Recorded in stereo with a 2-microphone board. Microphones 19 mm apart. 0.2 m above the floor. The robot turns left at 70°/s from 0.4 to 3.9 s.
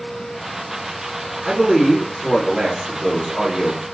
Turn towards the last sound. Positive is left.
turn(degrees=-170)